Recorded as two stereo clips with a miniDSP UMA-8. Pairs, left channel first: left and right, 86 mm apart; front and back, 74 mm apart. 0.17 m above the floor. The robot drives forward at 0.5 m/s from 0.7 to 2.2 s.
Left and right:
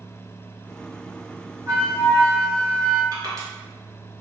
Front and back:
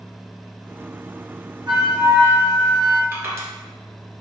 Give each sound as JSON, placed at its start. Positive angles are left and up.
{"t": 1.7, "sound": "a flute", "azimuth_deg": -150, "distance_m": 1.8}
{"t": 3.1, "sound": "crushing", "azimuth_deg": -130, "distance_m": 1.2}